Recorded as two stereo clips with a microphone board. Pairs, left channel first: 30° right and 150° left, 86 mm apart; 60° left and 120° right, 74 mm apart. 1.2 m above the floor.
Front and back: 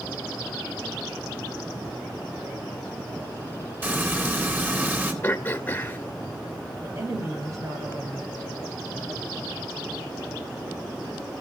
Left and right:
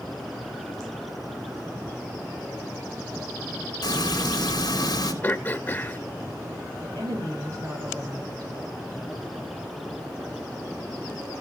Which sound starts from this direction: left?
Frying, at 3.8 s.